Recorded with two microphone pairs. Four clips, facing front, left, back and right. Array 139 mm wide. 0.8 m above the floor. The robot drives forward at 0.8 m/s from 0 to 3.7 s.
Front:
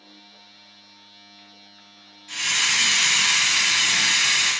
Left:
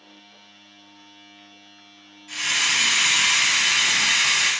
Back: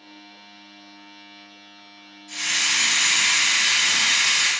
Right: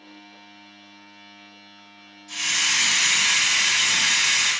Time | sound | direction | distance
2.3 | a hiss | 55° left | 1.2 m